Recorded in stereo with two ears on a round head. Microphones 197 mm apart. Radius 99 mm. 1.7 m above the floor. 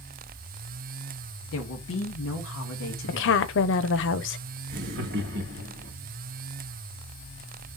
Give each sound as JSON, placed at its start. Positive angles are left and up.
{"t": 1.5, "sound": "a woman speaking", "side_deg": 65, "distance_m": 2.5}
{"t": 3.1, "sound": "a woman speaking", "side_deg": 60, "distance_m": 1.0}
{"t": 4.7, "sound": "laughter", "side_deg": -50, "distance_m": 2.0}